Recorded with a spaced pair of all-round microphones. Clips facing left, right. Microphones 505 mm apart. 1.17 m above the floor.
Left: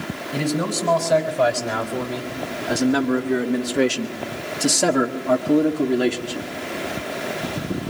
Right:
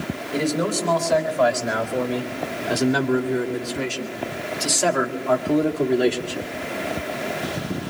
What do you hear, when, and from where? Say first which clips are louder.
0.3 s a man speaking: right 1 dB; 45° left (ahead or behind), 4.5 m; by 6.5 s 20° left (ahead or behind), 2.5 m